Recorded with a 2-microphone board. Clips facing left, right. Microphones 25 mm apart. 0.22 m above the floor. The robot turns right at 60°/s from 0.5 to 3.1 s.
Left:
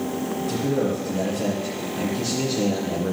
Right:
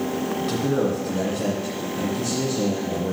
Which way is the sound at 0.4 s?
80° right.